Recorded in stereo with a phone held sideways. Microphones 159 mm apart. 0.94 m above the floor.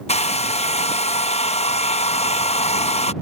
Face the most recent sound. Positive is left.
turn(degrees=45)  # may be behind; listen again after turning